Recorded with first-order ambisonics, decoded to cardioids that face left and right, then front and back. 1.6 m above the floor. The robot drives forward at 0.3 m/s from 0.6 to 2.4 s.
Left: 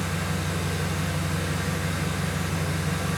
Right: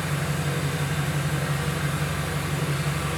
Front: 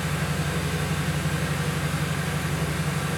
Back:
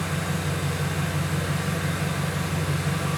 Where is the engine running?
70° right, 1.9 m; by 3.2 s 90° right, 1.9 m.